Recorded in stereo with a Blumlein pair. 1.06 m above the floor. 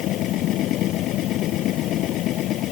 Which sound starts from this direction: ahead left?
A machine running, at 0.0 s.